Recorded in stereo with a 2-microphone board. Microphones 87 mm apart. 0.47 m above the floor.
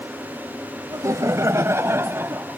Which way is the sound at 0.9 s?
40° right (ahead or behind).